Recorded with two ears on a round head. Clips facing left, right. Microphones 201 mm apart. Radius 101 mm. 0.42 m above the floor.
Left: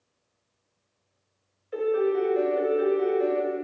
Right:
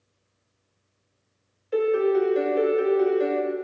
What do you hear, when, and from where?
1.7 s a piano: 55° right (ahead or behind), 1.2 m